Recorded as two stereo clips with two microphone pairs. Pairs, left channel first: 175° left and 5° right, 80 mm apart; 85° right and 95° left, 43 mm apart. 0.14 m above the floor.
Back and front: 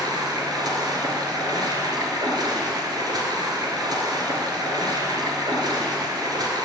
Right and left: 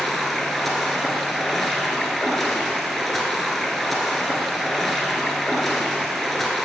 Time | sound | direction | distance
0.0 | running water | straight ahead | 1.2 m